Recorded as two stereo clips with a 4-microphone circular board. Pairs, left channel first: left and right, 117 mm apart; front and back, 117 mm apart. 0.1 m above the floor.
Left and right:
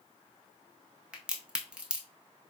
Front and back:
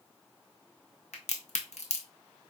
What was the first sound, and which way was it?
A crack, 10° right.